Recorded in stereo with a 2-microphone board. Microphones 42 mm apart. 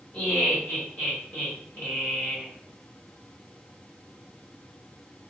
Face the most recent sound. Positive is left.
turn(degrees=40)  # may be behind; listen again after turning